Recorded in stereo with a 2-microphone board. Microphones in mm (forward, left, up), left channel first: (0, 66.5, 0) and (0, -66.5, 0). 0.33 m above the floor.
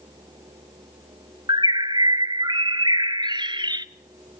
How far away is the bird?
About 0.7 m.